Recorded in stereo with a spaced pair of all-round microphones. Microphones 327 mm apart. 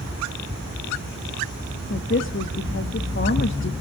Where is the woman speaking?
40° left (ahead or behind), 1.2 m.